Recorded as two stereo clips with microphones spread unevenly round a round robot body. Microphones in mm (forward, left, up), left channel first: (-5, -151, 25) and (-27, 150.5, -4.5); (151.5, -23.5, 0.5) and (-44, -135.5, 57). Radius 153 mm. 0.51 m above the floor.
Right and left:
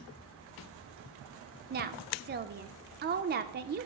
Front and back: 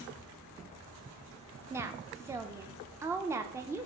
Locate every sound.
1.7 s a woman speaking: 120° left, 0.8 m